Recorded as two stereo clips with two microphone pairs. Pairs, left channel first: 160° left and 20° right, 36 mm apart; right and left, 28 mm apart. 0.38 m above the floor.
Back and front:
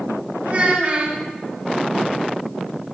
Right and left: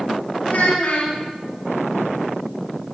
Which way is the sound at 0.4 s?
75° right.